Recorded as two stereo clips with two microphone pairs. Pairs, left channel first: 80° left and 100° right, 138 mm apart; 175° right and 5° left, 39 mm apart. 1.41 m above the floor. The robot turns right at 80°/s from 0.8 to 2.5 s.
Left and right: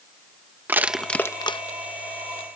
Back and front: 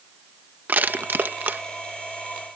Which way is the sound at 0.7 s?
25° right.